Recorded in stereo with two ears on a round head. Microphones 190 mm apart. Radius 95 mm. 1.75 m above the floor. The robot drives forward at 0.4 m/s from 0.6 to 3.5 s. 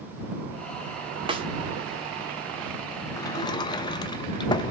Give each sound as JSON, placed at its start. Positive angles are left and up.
{"t": 1.3, "sound": "a snare drum", "side_deg": -25, "distance_m": 1.2}
{"t": 3.2, "sound": "a sliding door", "side_deg": 15, "distance_m": 0.7}